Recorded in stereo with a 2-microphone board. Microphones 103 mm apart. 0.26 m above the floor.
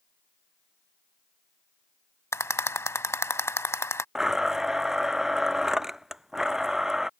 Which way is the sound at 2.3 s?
25° left (ahead or behind).